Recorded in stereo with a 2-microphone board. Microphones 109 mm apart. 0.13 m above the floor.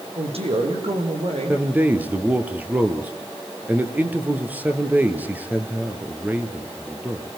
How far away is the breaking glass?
I don't hear breaking glass.